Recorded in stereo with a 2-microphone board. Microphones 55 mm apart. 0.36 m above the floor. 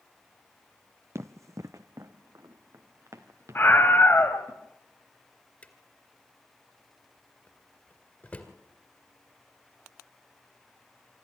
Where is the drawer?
30° left (ahead or behind), 2 m.